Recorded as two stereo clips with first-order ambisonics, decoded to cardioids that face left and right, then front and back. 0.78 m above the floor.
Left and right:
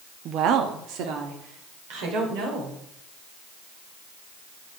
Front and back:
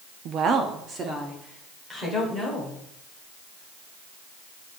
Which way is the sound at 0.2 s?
140° right.